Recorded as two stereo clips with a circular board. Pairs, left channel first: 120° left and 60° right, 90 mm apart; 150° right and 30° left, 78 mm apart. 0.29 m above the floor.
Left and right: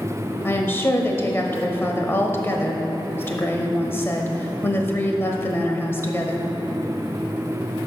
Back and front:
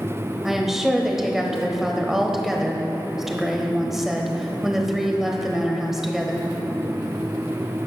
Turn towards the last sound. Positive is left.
turn(degrees=110)